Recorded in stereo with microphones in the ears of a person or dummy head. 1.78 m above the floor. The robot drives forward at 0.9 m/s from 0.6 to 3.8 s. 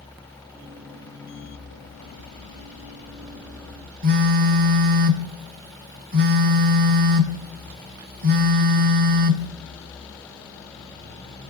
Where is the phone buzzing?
50° right (ahead or behind), 0.6 m.